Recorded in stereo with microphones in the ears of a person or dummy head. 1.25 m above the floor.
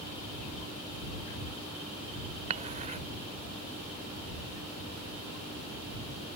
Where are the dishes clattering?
40° right (ahead or behind).